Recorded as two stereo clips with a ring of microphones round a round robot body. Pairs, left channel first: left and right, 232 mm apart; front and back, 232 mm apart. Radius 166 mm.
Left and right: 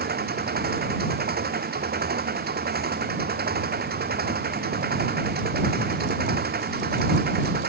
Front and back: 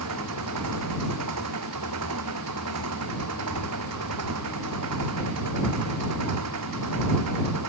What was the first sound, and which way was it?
An engine running, 140° right.